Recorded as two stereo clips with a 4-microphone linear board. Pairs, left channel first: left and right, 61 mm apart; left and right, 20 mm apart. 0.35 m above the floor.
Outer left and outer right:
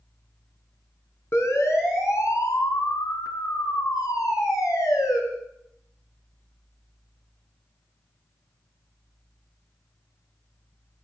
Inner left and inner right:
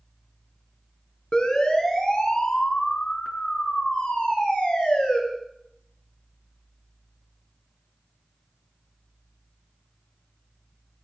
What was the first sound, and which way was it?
A siren, 50° left (ahead or behind).